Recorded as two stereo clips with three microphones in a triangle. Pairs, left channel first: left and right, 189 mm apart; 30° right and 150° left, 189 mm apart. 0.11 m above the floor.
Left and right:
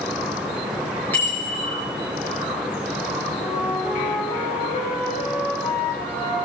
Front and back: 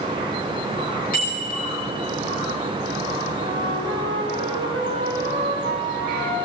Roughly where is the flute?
Behind left.